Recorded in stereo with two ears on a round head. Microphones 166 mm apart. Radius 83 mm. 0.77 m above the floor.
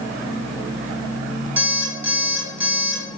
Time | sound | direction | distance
1.6 | an alarm clock | 10° right (ahead or behind) | 2.5 m